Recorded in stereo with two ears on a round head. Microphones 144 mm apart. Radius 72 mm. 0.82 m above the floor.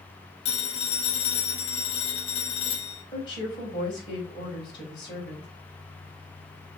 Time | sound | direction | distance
0.5 | a phone ringing | 40° left (ahead or behind) | 1.9 m
3.1 | a woman speaking | 30° left (ahead or behind) | 3.5 m